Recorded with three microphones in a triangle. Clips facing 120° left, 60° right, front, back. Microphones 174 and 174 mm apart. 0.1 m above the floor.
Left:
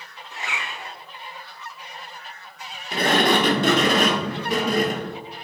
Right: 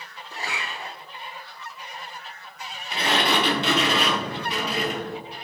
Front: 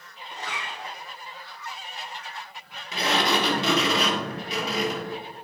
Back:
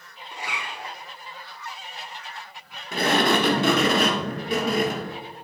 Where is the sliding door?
155° left, 0.8 m.